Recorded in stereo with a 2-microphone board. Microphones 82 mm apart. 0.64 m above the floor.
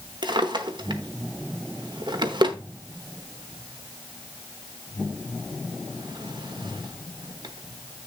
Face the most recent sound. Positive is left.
turn(degrees=-65)  # may be behind; listen again after turning